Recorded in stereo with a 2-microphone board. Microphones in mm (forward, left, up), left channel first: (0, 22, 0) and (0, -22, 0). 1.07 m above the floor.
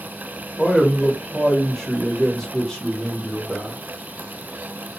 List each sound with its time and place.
0.6 s a man speaking: 10° left (ahead or behind), 1.2 m